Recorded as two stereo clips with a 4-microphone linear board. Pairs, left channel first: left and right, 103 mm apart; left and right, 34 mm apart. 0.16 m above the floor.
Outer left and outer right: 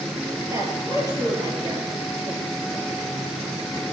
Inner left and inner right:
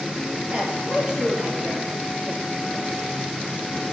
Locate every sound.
0.5 s a woman speaking: 30° right (ahead or behind), 4 m; by 2.9 s 40° right (ahead or behind), 5.5 m